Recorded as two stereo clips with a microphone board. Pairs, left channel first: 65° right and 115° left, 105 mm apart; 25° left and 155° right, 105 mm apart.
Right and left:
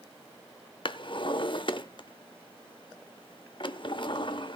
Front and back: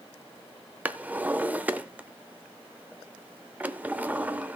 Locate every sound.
0.8 s a drawer: 85° right, 0.6 m